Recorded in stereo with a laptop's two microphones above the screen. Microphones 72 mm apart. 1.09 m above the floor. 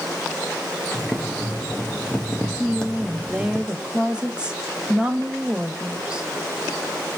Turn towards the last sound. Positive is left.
turn(degrees=-10)  # may be behind; listen again after turning